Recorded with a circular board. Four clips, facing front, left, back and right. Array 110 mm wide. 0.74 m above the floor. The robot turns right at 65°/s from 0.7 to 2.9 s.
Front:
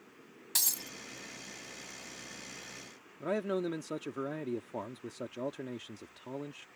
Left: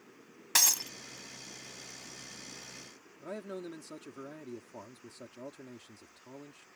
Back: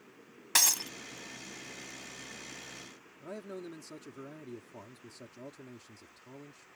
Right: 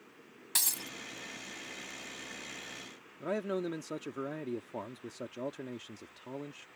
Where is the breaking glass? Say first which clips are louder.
Left 8 dB, back 12 dB; 140° left; by 0.9 s 155° left.